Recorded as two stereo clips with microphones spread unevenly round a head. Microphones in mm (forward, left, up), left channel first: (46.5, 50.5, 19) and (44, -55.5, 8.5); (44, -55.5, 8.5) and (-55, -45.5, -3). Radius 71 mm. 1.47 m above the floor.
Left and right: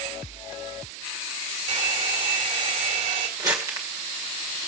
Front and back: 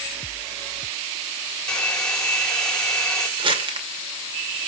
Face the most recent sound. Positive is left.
turn(degrees=-160)